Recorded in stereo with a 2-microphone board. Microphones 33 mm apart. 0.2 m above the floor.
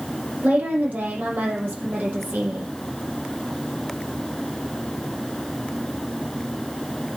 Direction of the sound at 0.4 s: 60° right (ahead or behind).